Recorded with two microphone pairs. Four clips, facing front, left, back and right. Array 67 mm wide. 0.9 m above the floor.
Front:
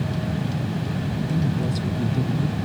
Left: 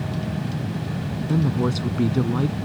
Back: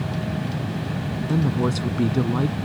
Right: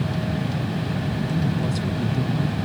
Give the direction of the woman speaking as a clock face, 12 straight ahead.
7 o'clock.